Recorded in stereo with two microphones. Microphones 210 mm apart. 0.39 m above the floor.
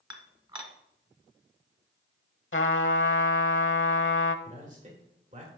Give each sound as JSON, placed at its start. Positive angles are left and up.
{"t": 0.1, "sound": "dishes clattering", "side_deg": -20, "distance_m": 1.2}
{"t": 2.5, "sound": "a trumpet", "side_deg": 75, "distance_m": 0.8}
{"t": 4.5, "sound": "a man speaking", "side_deg": -35, "distance_m": 1.6}